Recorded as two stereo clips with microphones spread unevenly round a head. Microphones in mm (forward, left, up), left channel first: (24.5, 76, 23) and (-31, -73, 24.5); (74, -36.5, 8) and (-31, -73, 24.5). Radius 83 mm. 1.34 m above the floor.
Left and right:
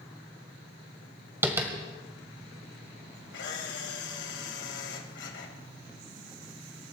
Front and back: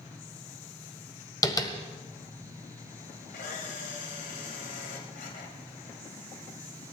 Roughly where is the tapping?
Ahead right.